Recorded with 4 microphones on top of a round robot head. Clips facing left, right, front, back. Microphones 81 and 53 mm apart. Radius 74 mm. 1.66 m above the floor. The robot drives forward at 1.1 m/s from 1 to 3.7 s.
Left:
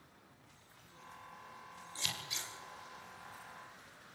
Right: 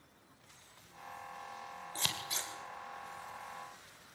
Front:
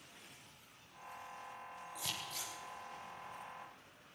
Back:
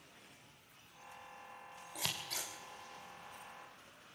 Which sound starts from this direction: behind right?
Scissors, at 1.9 s.